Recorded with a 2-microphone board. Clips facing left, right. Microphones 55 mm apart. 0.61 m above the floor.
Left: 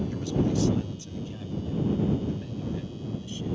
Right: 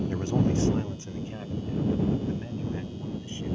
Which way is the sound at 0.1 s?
35° right (ahead or behind).